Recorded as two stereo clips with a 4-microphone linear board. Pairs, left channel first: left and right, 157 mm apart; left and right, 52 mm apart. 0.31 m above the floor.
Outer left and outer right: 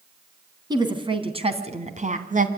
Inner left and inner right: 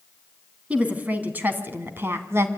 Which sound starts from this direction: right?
A woman speaking, at 0.7 s.